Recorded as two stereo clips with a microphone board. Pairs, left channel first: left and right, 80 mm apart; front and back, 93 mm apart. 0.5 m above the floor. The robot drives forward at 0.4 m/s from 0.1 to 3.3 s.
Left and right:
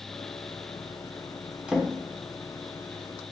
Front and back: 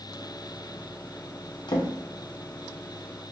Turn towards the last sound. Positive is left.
turn(degrees=-145)